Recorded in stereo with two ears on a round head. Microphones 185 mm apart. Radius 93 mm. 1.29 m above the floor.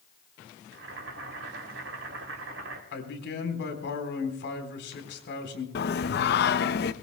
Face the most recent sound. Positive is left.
turn(degrees=50)  # may be behind; listen again after turning